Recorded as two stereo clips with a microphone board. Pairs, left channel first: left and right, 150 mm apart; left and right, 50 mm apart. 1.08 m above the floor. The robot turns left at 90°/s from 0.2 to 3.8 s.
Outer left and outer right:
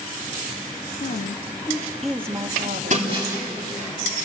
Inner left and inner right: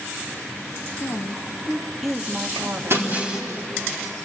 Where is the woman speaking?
95° left, 1.5 m; by 3.1 s 95° right, 1.5 m.